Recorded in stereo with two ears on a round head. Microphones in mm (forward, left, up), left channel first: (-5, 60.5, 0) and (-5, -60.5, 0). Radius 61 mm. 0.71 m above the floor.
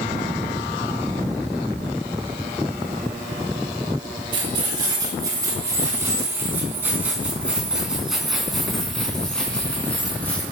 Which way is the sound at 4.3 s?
35° right (ahead or behind).